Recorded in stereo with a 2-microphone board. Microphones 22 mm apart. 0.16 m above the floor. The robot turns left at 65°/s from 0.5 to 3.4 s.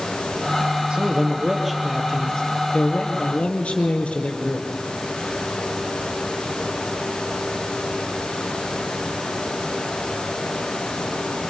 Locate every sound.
0.9 s a man speaking: 125° right, 4 m; by 4.7 s 70° left, 4 m